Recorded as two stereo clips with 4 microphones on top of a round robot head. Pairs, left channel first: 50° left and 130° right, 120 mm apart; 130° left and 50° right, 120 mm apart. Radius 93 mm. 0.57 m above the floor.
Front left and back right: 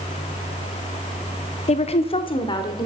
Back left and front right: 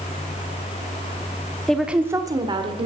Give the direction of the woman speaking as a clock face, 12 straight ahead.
10 o'clock.